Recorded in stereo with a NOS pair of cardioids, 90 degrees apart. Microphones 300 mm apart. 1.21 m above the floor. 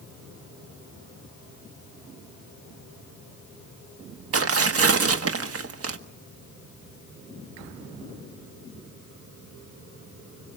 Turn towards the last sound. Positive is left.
turn(degrees=-50)